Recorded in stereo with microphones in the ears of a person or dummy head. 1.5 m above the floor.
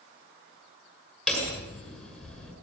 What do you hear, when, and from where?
1.3 s hammering: centre (ahead or behind), 7.5 m